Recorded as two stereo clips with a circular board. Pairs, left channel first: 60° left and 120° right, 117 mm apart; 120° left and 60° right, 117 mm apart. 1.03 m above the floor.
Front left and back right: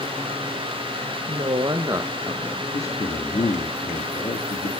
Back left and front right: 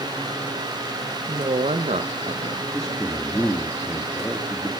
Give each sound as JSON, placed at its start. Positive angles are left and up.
{"t": 1.3, "sound": "a woman speaking", "azimuth_deg": -95, "distance_m": 0.7}
{"t": 2.7, "sound": "a man speaking", "azimuth_deg": 35, "distance_m": 2.5}